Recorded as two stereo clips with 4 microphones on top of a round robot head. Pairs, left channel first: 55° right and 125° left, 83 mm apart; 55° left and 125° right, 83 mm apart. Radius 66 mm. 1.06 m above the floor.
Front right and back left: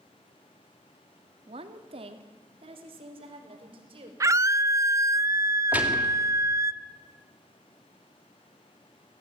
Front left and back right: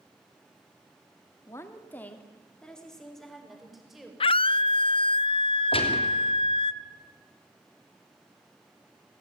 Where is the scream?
70° left, 0.6 m.